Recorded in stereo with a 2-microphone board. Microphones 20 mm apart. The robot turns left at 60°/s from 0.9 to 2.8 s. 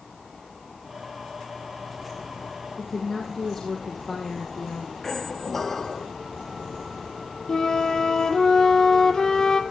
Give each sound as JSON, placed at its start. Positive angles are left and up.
{"t": 2.8, "sound": "a woman speaking", "side_deg": 25, "distance_m": 4.0}
{"t": 5.0, "sound": "a squeak", "side_deg": 20, "distance_m": 1.2}
{"t": 7.5, "sound": "a flute", "side_deg": 30, "distance_m": 1.7}